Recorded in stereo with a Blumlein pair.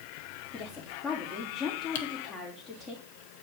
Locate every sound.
0.5 s a woman speaking: 20° left, 4 m
1.9 s typing on a keyboard: 55° left, 1.2 m